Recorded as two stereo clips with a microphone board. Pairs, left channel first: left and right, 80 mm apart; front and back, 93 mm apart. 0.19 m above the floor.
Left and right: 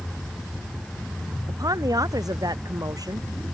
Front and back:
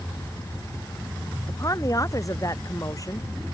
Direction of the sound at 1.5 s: 50° right.